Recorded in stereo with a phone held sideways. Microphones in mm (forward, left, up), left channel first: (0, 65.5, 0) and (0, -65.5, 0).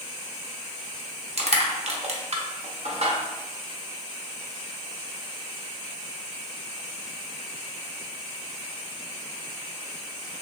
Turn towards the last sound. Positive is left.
turn(degrees=-55)  # may be behind; listen again after turning